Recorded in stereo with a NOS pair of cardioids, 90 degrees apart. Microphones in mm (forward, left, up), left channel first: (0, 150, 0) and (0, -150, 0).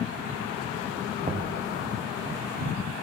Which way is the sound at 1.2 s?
25° right.